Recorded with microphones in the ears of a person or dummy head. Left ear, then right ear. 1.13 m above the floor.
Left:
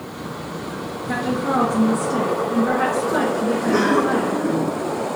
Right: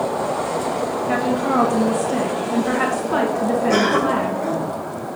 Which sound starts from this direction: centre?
A woman speaking, at 1.1 s.